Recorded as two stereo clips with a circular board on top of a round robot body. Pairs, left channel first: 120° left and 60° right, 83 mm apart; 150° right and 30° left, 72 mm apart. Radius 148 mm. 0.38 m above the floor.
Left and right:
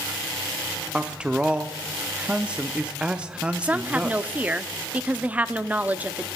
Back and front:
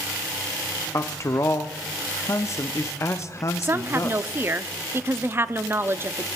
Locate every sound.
0.9 s a man speaking: 130° right, 1.0 m
3.6 s a woman speaking: straight ahead, 1.0 m